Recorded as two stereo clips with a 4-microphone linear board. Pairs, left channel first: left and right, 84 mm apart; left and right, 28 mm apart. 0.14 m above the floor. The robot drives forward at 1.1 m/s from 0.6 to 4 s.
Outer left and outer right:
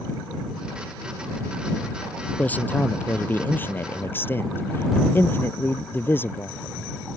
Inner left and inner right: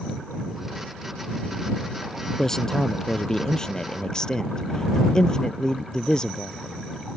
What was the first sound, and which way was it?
A man speaking, 20° left (ahead or behind).